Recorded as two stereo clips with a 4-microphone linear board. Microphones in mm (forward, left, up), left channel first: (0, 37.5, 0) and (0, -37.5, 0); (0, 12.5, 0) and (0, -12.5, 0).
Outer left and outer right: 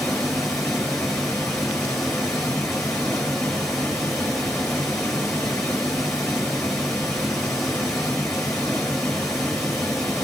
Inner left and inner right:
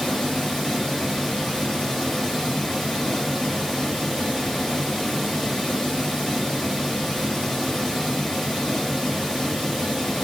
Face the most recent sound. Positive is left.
turn(degrees=5)  # may be behind; listen again after turning